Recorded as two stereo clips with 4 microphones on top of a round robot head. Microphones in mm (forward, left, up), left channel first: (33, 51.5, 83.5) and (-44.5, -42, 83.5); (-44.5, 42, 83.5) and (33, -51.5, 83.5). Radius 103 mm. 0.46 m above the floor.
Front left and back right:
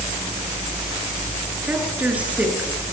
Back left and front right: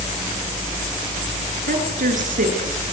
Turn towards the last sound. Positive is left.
turn(degrees=-50)